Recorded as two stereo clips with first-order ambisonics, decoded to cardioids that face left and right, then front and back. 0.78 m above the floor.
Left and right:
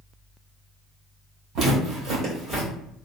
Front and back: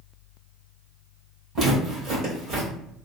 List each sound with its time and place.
1.6 s footsteps: 125° right, 1.5 m; by 2.7 s 160° right, 1.4 m